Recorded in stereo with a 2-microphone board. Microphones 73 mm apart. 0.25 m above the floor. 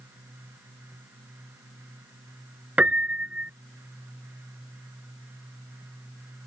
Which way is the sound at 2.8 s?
20° right (ahead or behind).